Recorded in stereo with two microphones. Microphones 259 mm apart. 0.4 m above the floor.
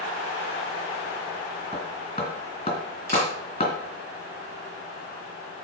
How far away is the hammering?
About 2.5 m.